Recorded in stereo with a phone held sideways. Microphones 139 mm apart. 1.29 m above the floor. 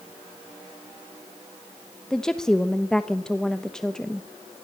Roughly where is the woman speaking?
Centre.